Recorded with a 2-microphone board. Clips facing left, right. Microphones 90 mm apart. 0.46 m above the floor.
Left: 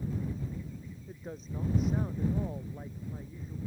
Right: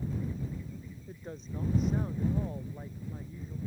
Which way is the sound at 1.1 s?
Centre (ahead or behind).